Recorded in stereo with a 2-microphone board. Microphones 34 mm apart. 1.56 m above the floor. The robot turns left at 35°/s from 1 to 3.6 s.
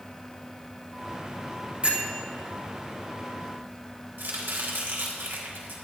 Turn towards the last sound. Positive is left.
turn(degrees=-85)